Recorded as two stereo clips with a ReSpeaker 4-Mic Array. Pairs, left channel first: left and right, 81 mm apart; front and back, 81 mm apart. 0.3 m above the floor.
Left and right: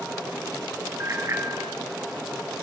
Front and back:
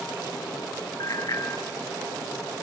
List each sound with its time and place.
1.0 s a bicycle bell: 35° right, 3.5 m